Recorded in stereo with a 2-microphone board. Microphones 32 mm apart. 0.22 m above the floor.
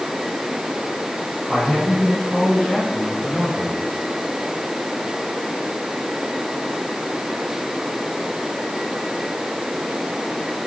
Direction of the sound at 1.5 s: 5° left (ahead or behind).